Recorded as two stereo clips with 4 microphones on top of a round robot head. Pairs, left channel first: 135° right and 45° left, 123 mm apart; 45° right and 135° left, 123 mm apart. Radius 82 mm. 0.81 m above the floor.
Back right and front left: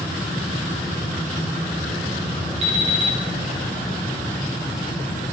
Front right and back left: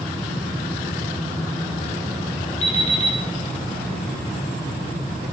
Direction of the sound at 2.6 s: Straight ahead.